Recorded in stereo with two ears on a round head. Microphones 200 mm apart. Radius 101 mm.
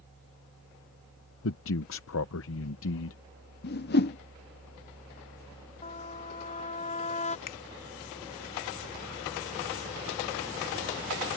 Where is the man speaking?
65° left (ahead or behind).